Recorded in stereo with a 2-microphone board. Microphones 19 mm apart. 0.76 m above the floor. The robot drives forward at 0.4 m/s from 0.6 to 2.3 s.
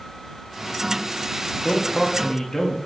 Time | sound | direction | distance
1.6 | a man speaking | 35° left (ahead or behind) | 1.4 m